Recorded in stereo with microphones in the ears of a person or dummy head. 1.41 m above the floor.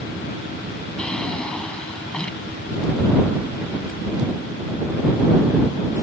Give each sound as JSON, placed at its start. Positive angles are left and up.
{"t": 1.0, "sound": "a drawer", "side_deg": 5}